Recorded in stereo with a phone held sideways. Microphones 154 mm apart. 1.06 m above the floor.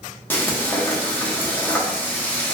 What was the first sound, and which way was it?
Frying, 10° left (ahead or behind).